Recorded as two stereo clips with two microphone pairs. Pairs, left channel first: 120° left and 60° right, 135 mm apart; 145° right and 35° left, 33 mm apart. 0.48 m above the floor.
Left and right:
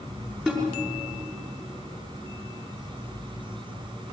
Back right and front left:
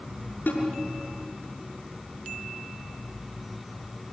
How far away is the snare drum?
About 6 m.